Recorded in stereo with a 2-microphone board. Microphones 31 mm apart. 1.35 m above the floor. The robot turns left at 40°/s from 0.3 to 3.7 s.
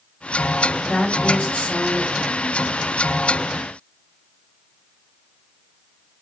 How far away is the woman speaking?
About 1.9 m.